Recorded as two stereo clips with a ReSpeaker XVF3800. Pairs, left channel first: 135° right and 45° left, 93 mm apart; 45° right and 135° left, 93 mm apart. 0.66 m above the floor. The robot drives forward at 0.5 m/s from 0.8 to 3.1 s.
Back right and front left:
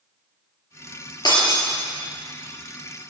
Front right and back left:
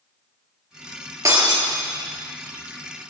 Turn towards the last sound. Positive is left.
turn(degrees=-175)